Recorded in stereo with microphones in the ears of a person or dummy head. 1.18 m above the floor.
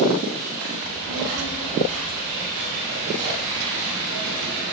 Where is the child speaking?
80° right, 2 m; by 4.6 s 70° right (ahead or behind), 4 m.